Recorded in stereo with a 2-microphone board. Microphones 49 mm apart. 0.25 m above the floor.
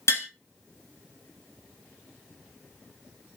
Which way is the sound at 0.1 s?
70° left (ahead or behind).